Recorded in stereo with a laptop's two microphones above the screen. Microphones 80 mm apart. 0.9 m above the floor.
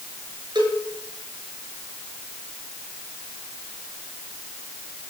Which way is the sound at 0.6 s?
70° right (ahead or behind).